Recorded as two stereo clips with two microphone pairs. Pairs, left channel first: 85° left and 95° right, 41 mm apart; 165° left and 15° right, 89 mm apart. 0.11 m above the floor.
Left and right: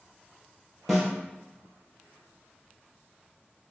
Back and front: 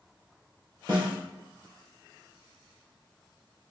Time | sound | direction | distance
0.9 | a snare drum | 10° right | 1.5 m